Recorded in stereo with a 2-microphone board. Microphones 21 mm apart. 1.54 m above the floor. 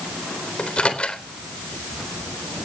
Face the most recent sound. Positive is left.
turn(degrees=65)  # may be behind; listen again after turning